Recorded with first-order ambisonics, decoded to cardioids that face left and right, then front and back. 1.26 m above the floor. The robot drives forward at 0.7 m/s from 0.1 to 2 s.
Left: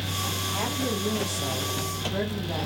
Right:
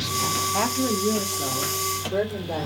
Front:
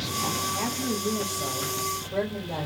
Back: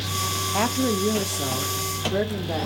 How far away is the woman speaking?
About 0.6 m.